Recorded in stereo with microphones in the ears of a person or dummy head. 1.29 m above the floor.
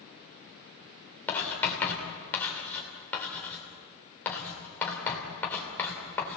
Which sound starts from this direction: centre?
Writing, at 1.3 s.